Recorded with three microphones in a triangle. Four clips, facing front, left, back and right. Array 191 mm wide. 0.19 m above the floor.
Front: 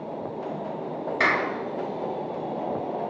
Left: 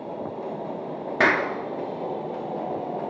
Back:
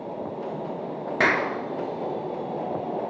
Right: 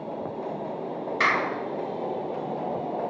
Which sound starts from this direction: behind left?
A clap, at 1.2 s.